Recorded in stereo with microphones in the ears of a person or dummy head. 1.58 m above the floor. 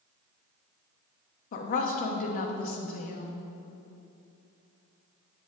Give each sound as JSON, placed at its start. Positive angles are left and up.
{"t": 1.5, "sound": "a woman speaking", "side_deg": 45, "distance_m": 0.9}